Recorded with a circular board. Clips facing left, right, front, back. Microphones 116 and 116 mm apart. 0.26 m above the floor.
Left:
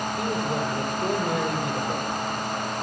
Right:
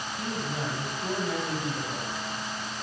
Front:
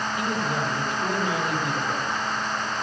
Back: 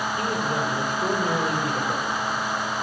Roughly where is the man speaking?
Behind left.